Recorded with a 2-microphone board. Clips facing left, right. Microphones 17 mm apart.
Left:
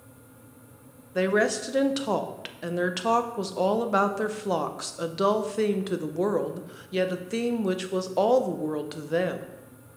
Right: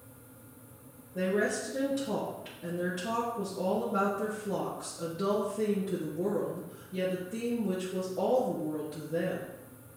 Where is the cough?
No cough in this recording.